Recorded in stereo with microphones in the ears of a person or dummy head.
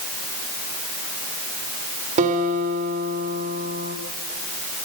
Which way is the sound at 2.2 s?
45° right (ahead or behind).